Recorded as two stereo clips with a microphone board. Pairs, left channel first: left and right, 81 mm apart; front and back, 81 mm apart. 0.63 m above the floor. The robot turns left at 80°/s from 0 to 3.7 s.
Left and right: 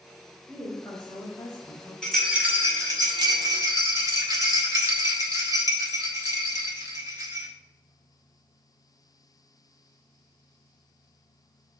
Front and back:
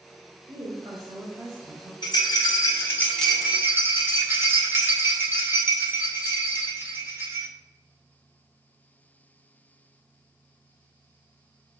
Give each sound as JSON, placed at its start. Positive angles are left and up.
{"t": 0.5, "sound": "a woman speaking", "azimuth_deg": 170, "distance_m": 2.5}
{"t": 2.0, "sound": "a rattle", "azimuth_deg": 10, "distance_m": 2.5}